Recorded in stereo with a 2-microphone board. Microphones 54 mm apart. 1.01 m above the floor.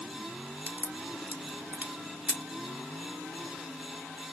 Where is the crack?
30° right (ahead or behind), 0.9 m.